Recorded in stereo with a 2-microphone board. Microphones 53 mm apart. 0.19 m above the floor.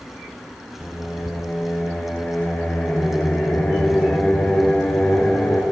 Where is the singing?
45° left (ahead or behind), 1.9 m.